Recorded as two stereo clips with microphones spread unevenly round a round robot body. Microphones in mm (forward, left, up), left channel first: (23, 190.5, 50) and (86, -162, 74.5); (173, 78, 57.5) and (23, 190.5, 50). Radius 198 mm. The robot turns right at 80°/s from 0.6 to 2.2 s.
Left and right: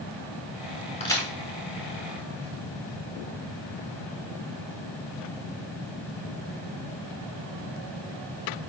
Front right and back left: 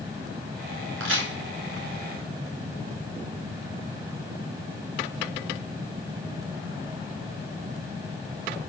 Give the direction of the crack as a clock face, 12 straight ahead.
6 o'clock.